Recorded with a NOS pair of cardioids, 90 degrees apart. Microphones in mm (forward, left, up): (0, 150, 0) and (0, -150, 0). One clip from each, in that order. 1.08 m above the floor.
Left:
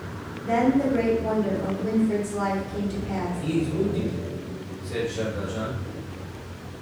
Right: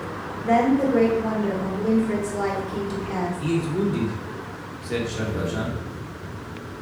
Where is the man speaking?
60° right, 1.3 m.